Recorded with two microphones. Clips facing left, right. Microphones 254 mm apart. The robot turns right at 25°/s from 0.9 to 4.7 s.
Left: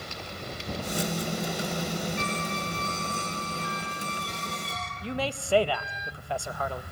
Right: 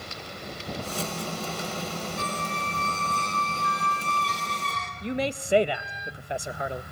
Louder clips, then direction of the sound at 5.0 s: Right 3 dB; 20° right (ahead or behind).